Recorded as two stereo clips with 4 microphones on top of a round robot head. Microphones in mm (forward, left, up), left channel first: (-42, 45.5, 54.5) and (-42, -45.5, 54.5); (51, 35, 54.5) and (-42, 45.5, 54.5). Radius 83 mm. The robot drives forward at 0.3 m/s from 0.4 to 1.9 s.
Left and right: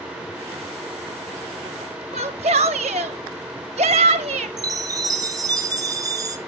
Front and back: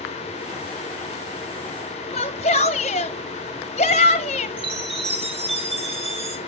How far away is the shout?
About 0.9 m.